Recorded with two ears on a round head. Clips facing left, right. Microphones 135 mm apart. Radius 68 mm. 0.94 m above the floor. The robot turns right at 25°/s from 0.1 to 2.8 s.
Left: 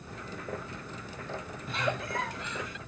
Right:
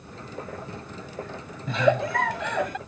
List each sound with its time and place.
1.7 s a giggle: 70° right (ahead or behind); by 2.8 s 45° right (ahead or behind)